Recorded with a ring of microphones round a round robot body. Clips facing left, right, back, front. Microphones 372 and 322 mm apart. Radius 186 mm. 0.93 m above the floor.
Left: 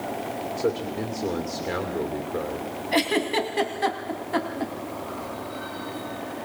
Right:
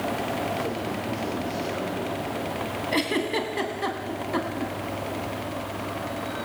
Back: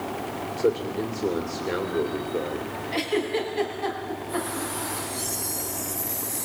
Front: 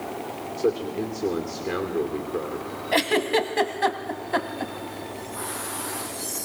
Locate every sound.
0.6 s a man speaking: 80° left, 2.5 m
2.9 s a giggle: 10° left, 2.0 m